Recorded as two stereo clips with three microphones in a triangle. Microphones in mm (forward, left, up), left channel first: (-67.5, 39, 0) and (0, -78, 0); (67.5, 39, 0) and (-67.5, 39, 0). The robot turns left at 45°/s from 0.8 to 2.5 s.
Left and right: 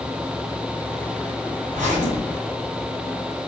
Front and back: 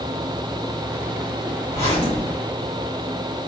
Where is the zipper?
55° right, 1.6 m; by 2.7 s 95° right, 1.6 m.